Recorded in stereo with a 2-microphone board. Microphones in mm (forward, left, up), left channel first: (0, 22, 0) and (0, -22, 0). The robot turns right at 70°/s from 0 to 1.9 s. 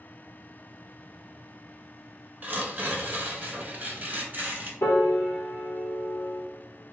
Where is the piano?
75° left (ahead or behind), 0.6 m.